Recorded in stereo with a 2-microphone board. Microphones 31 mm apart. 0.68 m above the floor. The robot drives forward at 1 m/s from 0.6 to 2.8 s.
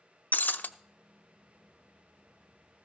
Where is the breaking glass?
80° left, 0.5 m; by 0.7 s 70° left (ahead or behind), 0.5 m.